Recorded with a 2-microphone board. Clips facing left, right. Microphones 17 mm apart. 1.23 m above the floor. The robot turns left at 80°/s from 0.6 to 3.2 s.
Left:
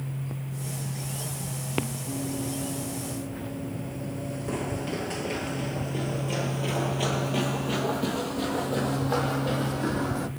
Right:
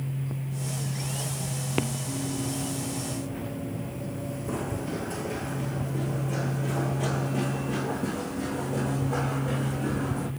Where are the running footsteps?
55° left (ahead or behind), 2 m; by 10.3 s 70° left (ahead or behind), 3.5 m.